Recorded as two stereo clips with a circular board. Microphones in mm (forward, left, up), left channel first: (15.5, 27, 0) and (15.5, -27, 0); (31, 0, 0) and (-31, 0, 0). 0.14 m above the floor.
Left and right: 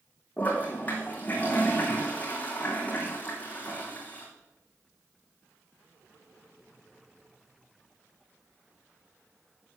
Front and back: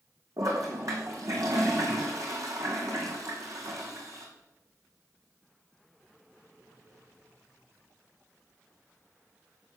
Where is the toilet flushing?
150° left, 2.5 m.